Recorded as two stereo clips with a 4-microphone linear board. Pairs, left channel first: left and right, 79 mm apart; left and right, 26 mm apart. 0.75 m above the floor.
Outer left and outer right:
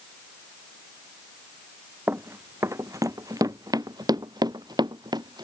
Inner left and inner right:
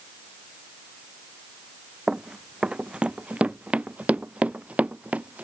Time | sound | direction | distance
2.1 | running footsteps | 30° right (ahead or behind) | ?